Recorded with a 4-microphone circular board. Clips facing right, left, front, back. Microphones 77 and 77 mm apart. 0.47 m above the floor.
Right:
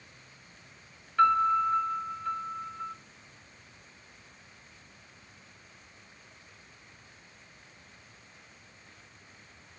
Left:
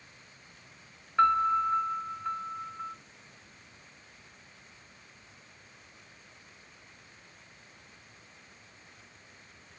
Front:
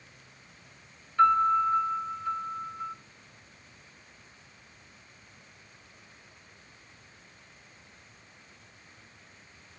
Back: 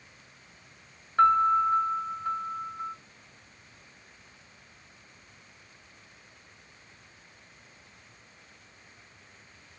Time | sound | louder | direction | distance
1.2 | a piano | right 1 dB, back 1 dB | 160° left | 0.7 m